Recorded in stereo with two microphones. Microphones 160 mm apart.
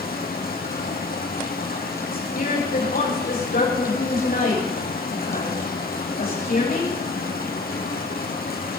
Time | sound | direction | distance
0.0 | running water | 75° left (ahead or behind) | 3 m
2.1 | a woman speaking | 75° left (ahead or behind) | 9.5 m